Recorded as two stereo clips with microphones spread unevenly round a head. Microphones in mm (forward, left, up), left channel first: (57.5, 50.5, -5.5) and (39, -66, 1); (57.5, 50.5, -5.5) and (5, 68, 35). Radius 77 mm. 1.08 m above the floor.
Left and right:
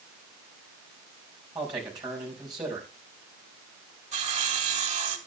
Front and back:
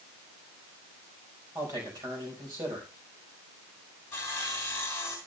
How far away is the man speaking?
About 4.5 m.